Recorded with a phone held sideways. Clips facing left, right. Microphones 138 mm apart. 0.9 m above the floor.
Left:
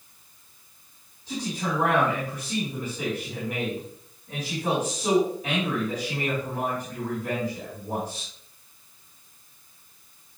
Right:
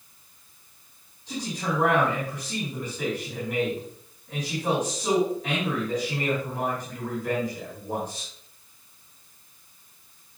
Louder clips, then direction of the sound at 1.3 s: Left 1 dB; 10° left (ahead or behind).